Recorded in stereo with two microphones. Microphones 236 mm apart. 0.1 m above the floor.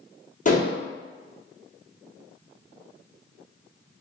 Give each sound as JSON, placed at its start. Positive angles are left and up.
{"t": 0.5, "sound": "dishes clattering", "side_deg": 35, "distance_m": 1.6}